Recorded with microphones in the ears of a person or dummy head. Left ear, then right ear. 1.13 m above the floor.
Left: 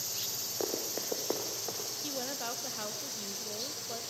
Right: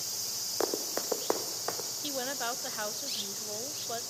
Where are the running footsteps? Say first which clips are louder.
Right 4 dB; 55° right (ahead or behind), 1.9 m; by 1.9 s 65° right (ahead or behind), 2.5 m.